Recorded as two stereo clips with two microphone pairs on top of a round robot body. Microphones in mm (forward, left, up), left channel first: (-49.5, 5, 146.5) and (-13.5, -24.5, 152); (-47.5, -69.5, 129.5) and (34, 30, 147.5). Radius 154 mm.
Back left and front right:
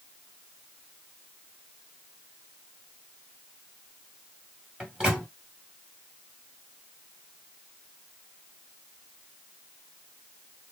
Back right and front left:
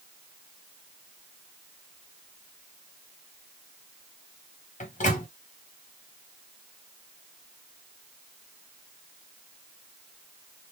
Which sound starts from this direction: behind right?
A microwave, at 4.8 s.